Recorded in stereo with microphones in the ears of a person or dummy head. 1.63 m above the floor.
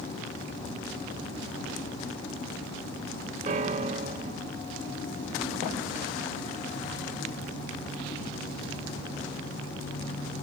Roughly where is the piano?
Right.